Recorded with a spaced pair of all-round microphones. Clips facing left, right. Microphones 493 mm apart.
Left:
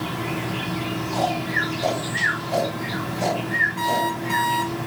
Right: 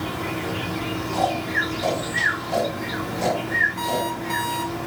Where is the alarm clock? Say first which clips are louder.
Left 1 dB; 55° left (ahead or behind), 3.5 m.